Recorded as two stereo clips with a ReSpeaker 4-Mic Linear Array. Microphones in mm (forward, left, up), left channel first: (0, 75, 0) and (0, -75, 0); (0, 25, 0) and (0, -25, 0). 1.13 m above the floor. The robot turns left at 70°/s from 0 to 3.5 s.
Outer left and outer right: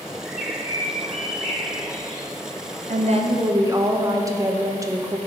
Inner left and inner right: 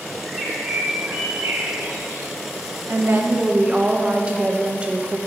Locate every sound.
0.2 s a bird: 5° left, 1.4 m; by 2.3 s 140° right, 1.4 m
2.9 s a woman speaking: 115° right, 0.8 m; by 5.2 s 155° right, 0.8 m